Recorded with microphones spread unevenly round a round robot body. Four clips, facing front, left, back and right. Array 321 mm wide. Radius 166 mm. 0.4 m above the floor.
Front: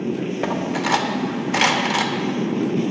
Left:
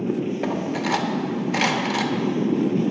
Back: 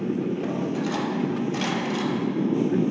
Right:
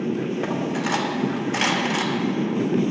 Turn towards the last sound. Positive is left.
turn(degrees=20)